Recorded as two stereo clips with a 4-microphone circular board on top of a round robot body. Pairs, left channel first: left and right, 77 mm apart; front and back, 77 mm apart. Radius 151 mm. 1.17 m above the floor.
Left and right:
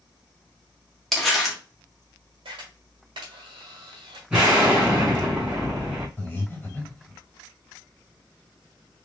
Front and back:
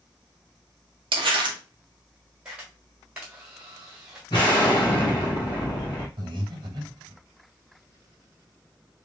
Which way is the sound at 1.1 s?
175° left.